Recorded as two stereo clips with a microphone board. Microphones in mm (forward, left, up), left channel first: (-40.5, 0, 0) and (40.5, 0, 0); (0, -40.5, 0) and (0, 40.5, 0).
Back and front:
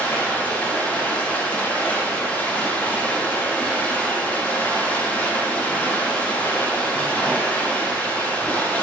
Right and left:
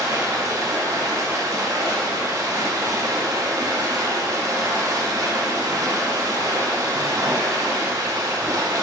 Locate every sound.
0.0 s running water: 115° left, 0.7 m